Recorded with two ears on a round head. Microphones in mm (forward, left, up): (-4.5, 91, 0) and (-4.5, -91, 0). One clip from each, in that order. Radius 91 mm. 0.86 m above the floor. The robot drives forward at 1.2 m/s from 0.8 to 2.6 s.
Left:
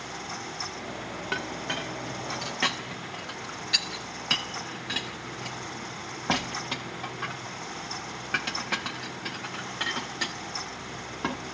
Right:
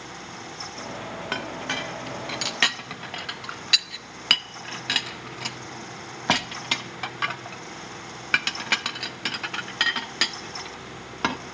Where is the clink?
25° right (ahead or behind), 1.5 m; by 11.4 s 65° right (ahead or behind), 0.7 m.